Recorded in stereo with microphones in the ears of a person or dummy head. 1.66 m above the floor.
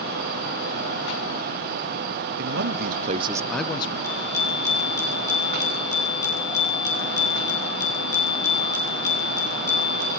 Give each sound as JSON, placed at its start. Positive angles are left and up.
{"t": 2.4, "sound": "a man speaking", "side_deg": -65, "distance_m": 1.1}
{"t": 4.0, "sound": "a bicycle bell", "side_deg": 20, "distance_m": 7.5}